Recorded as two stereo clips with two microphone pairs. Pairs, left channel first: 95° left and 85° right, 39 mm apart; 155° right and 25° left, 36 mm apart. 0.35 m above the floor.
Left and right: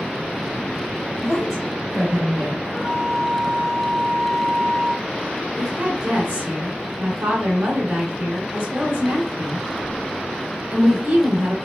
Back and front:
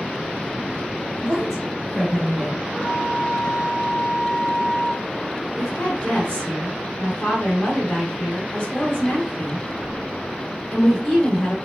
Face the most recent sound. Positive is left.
turn(degrees=-100)